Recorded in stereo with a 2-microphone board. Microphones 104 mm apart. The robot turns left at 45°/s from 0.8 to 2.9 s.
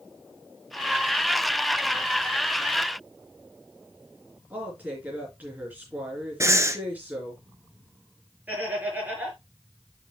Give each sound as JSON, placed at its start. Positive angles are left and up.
{"t": 4.5, "sound": "a woman speaking", "side_deg": -15, "distance_m": 4.0}
{"t": 6.4, "sound": "breathing", "side_deg": -30, "distance_m": 1.0}
{"t": 8.5, "sound": "laughter", "side_deg": -15, "distance_m": 4.5}